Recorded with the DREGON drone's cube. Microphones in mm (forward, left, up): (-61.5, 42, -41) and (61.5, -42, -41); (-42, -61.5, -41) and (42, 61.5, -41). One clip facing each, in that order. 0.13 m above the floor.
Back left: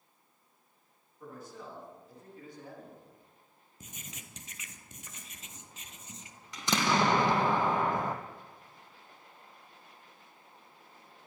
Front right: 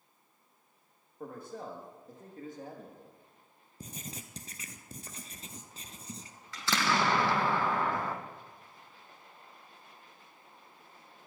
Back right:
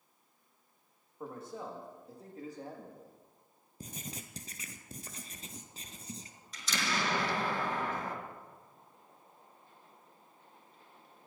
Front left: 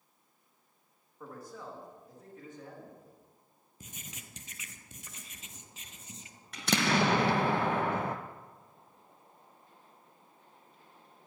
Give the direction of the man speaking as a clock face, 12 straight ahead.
2 o'clock.